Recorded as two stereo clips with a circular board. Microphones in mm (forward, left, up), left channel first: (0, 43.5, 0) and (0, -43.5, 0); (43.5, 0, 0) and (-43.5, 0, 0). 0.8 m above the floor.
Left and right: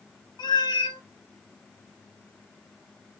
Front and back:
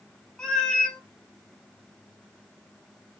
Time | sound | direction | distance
0.4 | a cat meowing | 80° left | 0.6 m